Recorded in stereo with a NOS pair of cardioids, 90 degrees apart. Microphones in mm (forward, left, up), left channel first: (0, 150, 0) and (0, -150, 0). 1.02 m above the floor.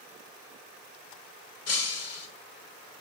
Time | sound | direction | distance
1.7 | breaking glass | 55° left | 1.8 m